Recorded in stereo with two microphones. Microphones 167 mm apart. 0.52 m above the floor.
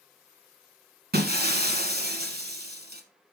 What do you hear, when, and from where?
1.1 s breaking glass: 75° right (ahead or behind), 1.3 m